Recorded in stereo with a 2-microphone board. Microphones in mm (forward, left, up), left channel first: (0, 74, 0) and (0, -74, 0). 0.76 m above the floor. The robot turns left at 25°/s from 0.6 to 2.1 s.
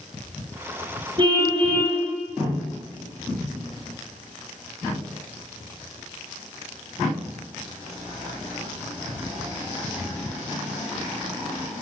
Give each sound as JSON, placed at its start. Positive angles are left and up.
{"t": 1.2, "sound": "a car horn", "side_deg": -35, "distance_m": 7.0}